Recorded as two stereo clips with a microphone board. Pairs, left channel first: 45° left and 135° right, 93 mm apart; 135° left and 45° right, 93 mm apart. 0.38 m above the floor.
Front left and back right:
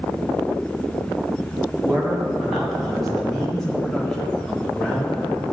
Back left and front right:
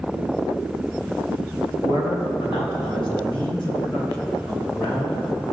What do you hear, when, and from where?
1.8 s a man speaking: 140° left, 2 m; by 5.4 s 125° left, 4.5 m